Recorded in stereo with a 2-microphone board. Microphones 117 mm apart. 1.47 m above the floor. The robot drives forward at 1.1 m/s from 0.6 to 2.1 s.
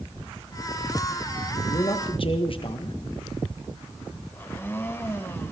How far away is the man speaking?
About 1.9 m.